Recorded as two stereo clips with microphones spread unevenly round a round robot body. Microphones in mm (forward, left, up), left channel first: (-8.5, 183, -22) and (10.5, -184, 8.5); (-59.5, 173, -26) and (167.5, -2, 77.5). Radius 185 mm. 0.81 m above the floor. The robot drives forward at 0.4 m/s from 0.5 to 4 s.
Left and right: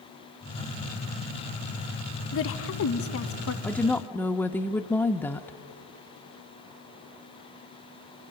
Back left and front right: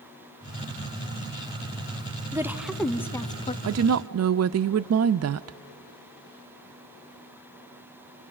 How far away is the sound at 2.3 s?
About 0.8 m.